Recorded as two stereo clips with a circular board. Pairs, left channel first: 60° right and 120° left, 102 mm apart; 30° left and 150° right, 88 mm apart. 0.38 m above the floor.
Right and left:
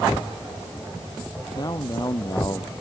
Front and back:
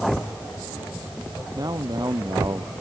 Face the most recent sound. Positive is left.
turn(degrees=-110)